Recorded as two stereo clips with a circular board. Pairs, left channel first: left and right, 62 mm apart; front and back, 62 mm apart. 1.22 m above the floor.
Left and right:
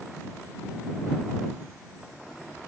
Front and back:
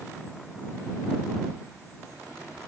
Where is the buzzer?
No buzzer in this recording.